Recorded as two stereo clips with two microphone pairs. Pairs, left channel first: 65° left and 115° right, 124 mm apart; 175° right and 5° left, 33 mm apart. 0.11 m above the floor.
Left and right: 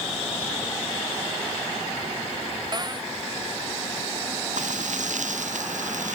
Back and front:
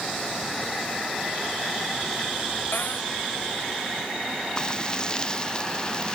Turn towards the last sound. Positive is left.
turn(degrees=-110)